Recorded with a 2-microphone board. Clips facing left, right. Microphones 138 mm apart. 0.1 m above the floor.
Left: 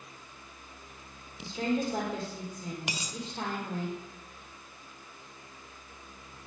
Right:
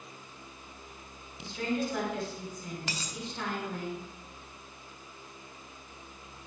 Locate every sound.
1.4 s a woman speaking: 30° left (ahead or behind), 4.5 m
2.9 s a dropped coin: 15° left (ahead or behind), 1.1 m